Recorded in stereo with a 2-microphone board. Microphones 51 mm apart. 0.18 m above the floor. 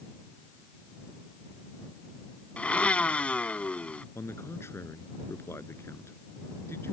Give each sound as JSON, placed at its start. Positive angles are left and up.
{"t": 2.6, "sound": "a blender", "side_deg": 25}
{"t": 4.2, "sound": "a man speaking", "side_deg": 60}